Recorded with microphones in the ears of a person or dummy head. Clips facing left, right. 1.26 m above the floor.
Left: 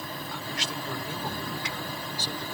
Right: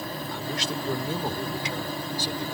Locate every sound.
0.3 s a man speaking: 35° right (ahead or behind); by 2.5 s 5° right (ahead or behind)